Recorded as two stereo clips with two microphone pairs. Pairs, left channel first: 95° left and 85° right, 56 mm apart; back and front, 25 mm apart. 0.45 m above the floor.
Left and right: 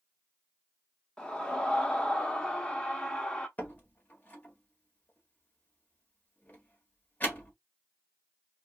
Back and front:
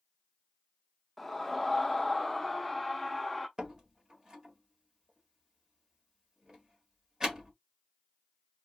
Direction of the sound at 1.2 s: 125° left.